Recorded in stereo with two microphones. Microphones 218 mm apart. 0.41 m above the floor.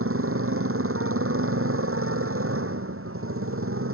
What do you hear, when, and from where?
0.0 s a motorcycle: 80° right